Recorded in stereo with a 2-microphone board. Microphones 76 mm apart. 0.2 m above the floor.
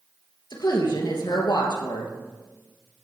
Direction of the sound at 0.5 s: 70° left (ahead or behind).